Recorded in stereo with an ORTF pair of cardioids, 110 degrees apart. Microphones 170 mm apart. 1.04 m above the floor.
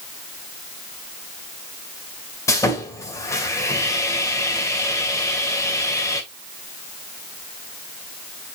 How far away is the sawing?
About 2 m.